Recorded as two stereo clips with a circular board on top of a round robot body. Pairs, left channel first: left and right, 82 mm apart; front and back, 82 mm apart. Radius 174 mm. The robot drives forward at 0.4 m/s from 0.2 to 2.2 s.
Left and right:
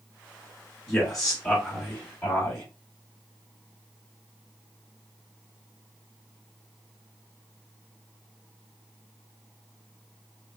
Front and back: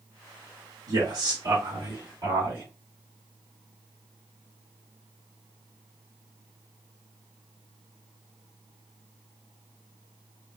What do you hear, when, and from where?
0.9 s a man speaking: 170° left, 1.8 m; by 2.6 s 175° left, 2 m